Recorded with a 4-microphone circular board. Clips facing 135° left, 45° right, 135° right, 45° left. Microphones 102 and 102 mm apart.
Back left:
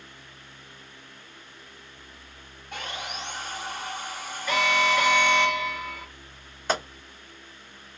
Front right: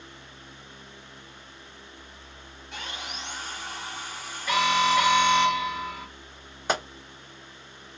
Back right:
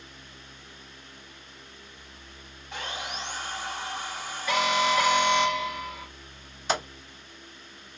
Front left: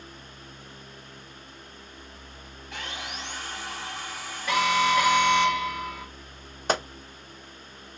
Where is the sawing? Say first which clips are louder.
Back left 3 dB, back right 2 dB; 160° left, 1.1 m.